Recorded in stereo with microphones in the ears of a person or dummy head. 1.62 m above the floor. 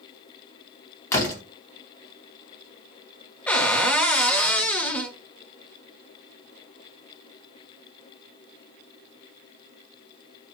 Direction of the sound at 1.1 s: 20° left (ahead or behind).